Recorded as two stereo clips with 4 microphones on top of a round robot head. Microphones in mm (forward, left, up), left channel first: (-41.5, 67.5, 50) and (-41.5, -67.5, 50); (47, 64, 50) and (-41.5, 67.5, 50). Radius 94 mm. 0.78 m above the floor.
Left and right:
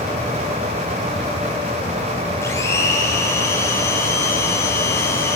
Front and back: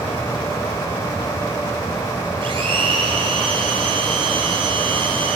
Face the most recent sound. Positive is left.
turn(degrees=160)